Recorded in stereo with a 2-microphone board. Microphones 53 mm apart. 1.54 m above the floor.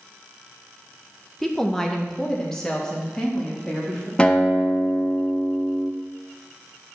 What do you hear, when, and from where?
1.4 s a woman speaking: 5° left (ahead or behind), 1.1 m; by 4.1 s 15° left (ahead or behind), 3 m
4.2 s a guitar: 20° left (ahead or behind), 1.0 m